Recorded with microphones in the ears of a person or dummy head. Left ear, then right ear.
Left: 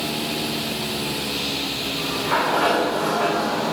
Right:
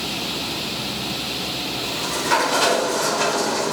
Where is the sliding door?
80° right, 3.5 m.